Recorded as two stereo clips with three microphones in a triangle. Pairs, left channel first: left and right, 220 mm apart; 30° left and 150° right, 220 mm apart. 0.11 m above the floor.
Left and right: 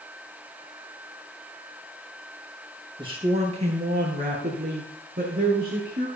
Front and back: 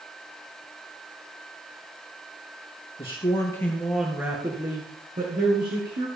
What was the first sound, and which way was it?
A man speaking, 30° right.